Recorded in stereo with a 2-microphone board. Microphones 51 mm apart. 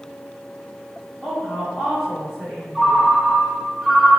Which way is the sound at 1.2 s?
5° left (ahead or behind).